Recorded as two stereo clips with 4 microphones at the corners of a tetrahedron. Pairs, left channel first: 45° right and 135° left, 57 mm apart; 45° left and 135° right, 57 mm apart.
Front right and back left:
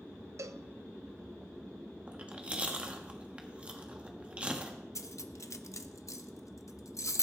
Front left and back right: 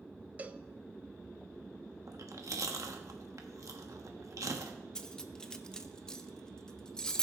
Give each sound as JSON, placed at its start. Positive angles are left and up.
{"t": 0.4, "sound": "a cowbell", "azimuth_deg": 165, "distance_m": 0.5}
{"t": 2.1, "sound": "chewing", "azimuth_deg": -155, "distance_m": 1.3}
{"t": 5.0, "sound": "cutlery clinking", "azimuth_deg": -30, "distance_m": 0.7}